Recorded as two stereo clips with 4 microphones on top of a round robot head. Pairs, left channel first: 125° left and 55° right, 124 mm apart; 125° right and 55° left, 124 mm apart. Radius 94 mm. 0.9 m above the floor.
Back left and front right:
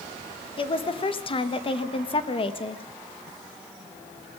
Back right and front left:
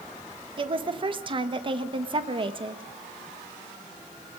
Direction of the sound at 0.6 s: 90° left.